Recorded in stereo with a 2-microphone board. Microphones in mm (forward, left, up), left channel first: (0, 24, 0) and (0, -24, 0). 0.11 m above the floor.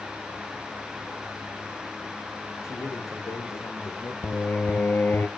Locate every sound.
2.6 s a man speaking: 80° left, 7 m
4.2 s singing: 40° left (ahead or behind), 0.8 m